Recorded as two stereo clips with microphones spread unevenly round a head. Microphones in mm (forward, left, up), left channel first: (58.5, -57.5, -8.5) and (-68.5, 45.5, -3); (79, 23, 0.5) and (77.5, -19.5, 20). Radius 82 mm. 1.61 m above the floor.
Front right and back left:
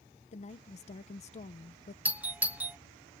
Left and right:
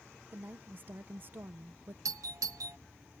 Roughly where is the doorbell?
Behind right.